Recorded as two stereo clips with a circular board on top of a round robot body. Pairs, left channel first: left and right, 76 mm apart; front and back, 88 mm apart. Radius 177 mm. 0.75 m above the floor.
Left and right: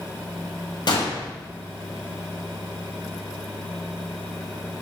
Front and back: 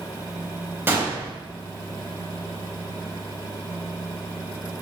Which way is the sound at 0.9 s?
115° left.